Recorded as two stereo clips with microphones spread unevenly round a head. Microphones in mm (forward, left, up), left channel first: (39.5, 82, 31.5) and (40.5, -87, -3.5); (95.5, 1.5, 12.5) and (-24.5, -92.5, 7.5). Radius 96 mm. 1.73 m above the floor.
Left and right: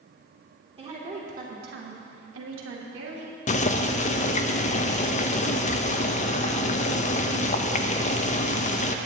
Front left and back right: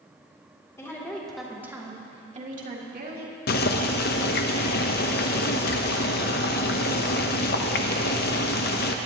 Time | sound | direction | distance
0.8 | a woman speaking | 35° right | 2.5 m
3.5 | boiling | 55° left | 0.6 m